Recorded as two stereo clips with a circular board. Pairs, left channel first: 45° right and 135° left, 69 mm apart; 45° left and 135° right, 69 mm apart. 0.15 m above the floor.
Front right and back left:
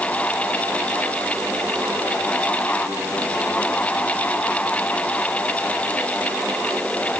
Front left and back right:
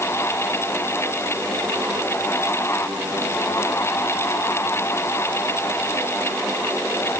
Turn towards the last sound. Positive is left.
No sound to turn to.